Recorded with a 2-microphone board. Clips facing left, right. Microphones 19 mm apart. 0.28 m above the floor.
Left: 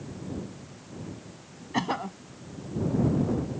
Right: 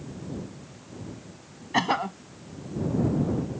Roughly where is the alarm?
I don't hear an alarm.